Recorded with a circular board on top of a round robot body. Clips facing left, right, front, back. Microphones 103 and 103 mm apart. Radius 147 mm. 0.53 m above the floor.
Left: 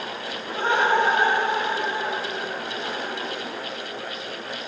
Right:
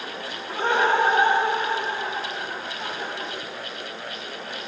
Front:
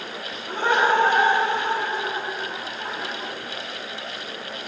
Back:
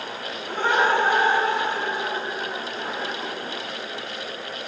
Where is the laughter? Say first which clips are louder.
Even, front 1 dB; 70° right, 3 m; by 3.3 s 60° right, 4 m.